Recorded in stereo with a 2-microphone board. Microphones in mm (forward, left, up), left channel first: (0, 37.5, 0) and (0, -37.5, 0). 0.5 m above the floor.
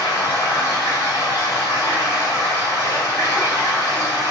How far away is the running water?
About 4.5 m.